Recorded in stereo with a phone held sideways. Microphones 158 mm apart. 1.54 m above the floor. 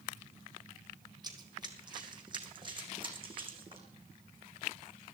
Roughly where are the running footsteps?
Right.